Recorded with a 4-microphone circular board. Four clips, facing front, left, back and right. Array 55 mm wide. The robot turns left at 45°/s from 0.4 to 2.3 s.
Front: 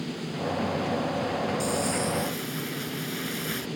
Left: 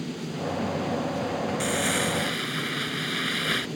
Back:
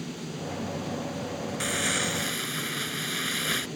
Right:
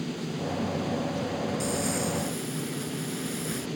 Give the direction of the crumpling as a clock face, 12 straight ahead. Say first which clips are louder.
Left 3 dB, front 2 dB; 7 o'clock.